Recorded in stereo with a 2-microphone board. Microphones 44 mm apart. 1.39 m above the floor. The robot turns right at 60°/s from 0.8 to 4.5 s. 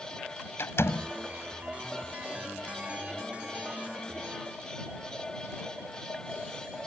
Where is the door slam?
70° left (ahead or behind); by 1.1 s 85° left.